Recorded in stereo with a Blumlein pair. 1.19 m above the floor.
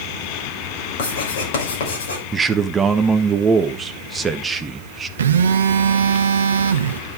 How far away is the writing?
About 6 m.